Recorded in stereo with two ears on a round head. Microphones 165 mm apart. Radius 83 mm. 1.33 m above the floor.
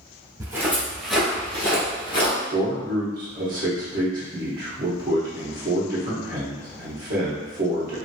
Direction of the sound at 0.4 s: 20° right (ahead or behind).